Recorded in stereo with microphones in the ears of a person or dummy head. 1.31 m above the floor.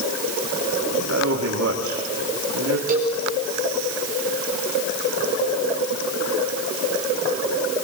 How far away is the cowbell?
About 3 m.